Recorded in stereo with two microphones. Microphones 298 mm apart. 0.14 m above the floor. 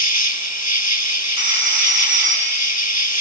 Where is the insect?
65° left (ahead or behind), 1.5 m.